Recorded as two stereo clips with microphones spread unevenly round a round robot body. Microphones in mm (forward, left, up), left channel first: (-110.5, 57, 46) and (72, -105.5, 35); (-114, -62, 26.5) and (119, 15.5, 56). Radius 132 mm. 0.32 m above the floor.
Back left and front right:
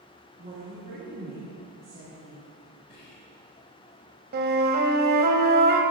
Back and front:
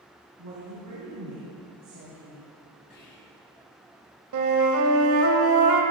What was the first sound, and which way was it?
A woman speaking, 10° left.